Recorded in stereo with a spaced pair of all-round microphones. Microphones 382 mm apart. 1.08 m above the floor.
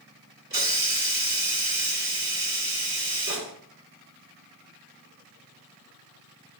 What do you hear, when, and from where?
0.5 s a hiss: 45° right (ahead or behind), 1.1 m